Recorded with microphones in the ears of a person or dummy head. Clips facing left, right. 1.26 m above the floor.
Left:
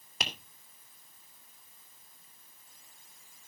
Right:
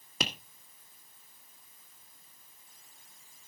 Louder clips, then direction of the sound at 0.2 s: Right 4 dB; 75° right (ahead or behind).